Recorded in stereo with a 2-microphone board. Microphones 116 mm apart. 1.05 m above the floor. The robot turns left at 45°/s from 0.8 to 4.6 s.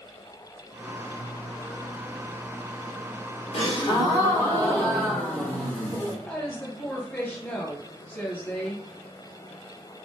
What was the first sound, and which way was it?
A gasp, 60° left.